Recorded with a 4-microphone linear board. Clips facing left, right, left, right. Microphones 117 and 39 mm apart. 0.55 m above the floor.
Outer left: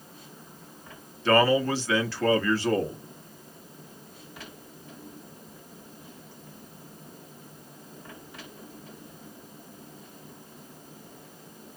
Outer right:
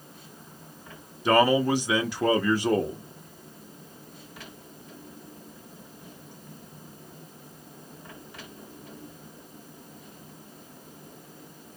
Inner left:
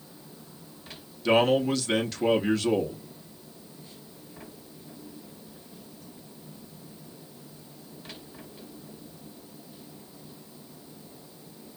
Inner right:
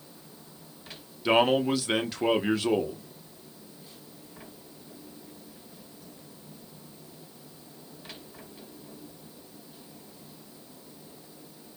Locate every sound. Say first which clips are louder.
1.2 s a man speaking: outer right 1 dB, inner left 1 dB; 15° right (ahead or behind), 0.6 m